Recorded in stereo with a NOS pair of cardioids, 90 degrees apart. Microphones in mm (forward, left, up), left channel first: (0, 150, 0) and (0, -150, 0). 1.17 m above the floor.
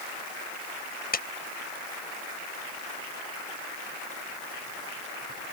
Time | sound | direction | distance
1.1 | a clap | 30° left | ?